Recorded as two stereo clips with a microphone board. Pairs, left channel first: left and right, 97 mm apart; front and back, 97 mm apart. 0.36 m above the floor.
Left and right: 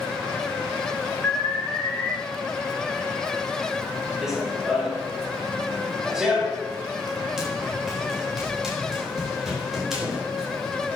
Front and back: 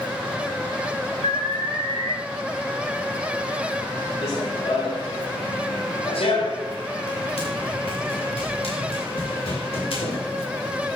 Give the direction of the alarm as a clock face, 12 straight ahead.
12 o'clock.